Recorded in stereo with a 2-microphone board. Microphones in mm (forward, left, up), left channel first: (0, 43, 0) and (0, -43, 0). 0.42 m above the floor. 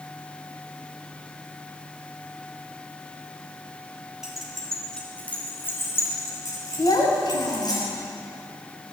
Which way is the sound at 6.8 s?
70° left (ahead or behind).